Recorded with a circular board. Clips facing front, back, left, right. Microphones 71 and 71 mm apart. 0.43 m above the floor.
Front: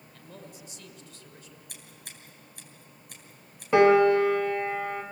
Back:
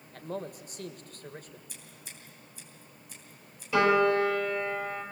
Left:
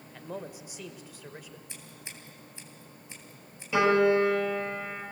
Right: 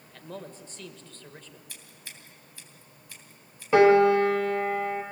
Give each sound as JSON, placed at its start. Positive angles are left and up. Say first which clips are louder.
{"t": 0.1, "sound": "a man speaking", "louder": "back 10 dB, left 1 dB", "azimuth_deg": 165, "distance_m": 1.5}
{"t": 1.7, "sound": "scissors", "louder": "front 1 dB, left 2 dB", "azimuth_deg": 25, "distance_m": 3.0}
{"t": 3.7, "sound": "a piano", "louder": "front 5 dB, right 5 dB", "azimuth_deg": -40, "distance_m": 3.0}